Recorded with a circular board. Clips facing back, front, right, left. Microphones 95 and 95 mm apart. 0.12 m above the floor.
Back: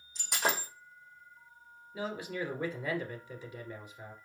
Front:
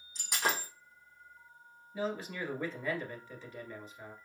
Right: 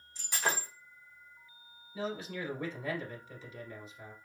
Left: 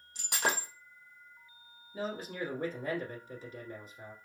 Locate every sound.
0.1 s breaking glass: 90° left, 2.5 m
1.9 s a man speaking: 110° left, 1.7 m